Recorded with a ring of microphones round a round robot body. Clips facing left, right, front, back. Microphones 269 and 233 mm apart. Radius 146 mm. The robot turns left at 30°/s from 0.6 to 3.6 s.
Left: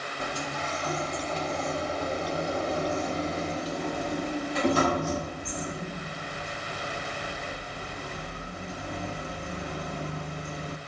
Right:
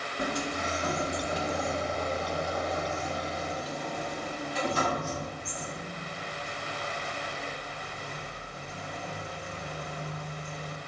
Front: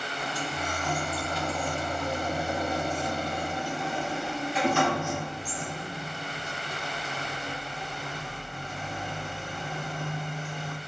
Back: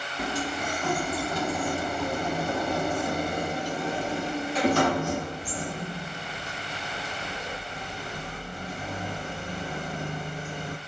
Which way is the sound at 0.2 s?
145° right.